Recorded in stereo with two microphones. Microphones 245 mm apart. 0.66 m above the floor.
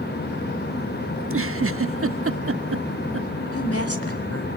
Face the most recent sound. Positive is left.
turn(degrees=70)  # may be behind; listen again after turning